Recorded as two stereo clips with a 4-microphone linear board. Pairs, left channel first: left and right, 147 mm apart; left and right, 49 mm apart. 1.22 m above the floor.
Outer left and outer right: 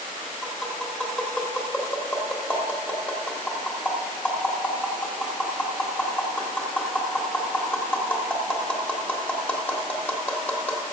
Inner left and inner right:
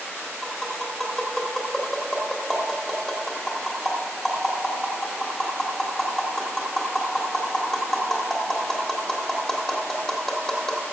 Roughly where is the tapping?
Centre.